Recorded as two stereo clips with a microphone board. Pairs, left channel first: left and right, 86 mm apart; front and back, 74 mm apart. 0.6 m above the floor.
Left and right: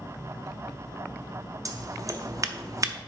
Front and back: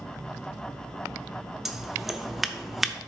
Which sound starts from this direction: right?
Scissors, at 1.6 s.